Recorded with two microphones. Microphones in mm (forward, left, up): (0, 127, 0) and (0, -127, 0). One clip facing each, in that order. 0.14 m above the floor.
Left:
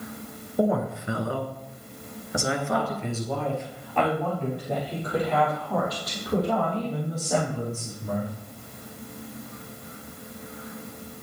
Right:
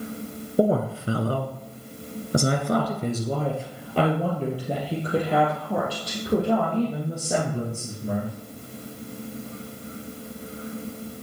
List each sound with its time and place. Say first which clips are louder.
0.6 s a woman speaking: right 3 dB; 30° right (ahead or behind), 1.5 m; by 8.3 s 25° right (ahead or behind), 6 m